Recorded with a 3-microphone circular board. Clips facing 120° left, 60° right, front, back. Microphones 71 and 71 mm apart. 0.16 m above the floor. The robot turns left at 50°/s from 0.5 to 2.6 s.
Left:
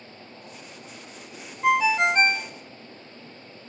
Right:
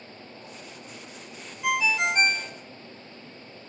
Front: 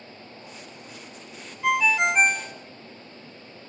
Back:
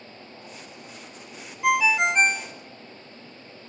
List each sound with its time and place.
1.6 s a ringtone: 110° left, 0.7 m; by 2.5 s 70° left, 0.7 m